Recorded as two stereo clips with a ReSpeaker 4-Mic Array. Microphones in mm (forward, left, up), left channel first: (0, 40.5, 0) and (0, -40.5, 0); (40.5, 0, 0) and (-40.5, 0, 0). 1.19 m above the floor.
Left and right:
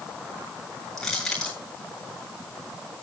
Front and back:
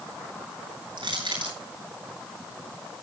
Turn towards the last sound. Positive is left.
turn(degrees=175)